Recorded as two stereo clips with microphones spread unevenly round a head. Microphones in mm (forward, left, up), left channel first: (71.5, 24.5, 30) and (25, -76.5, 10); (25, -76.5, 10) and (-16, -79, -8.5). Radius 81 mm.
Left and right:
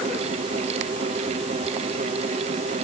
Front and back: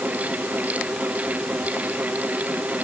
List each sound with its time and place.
0.0 s a fan: 140° right, 0.7 m